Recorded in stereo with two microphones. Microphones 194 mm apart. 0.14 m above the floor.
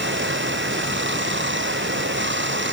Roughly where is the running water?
Right.